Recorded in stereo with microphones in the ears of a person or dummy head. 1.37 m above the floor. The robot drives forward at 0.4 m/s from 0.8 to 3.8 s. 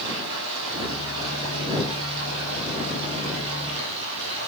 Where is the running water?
85° right, 6 m; by 4.5 s 80° right, 6.5 m.